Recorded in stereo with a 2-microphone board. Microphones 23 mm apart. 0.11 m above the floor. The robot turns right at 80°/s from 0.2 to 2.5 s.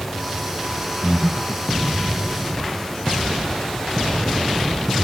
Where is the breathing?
85° left, 1.6 m; by 1.7 s 140° left, 1.6 m.